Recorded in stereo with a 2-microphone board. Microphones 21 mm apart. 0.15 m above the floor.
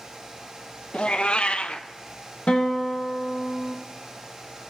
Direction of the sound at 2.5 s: 80° left.